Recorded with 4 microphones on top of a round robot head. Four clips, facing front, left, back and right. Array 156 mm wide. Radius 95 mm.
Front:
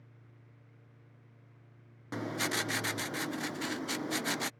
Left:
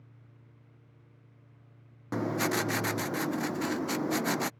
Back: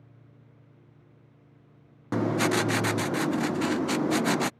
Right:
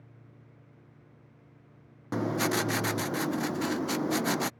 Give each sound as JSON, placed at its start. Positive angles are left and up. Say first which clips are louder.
{"t": 2.1, "sound": "writing", "louder": "right 1 dB, back 11 dB", "azimuth_deg": -175}